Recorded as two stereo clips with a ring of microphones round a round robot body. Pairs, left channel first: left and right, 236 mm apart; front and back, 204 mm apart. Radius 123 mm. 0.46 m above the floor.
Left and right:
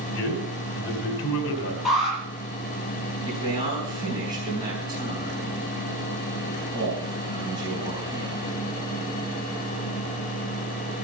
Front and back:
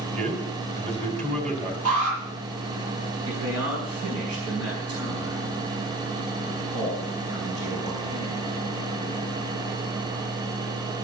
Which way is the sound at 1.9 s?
Straight behind.